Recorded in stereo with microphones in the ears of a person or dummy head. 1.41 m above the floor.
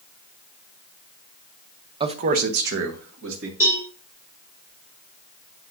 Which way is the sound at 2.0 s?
25° right (ahead or behind).